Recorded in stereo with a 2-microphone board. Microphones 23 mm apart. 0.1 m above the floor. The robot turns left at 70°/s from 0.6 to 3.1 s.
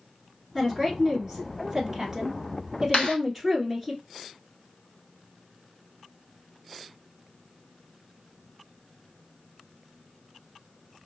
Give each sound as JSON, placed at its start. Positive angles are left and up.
{"t": 0.6, "sound": "a woman speaking", "side_deg": -10, "distance_m": 1.5}
{"t": 2.9, "sound": "a clap", "side_deg": 55, "distance_m": 2.0}